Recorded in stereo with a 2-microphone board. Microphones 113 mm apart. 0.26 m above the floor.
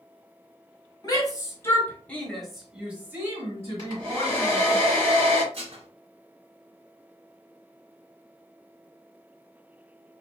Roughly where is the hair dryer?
Right.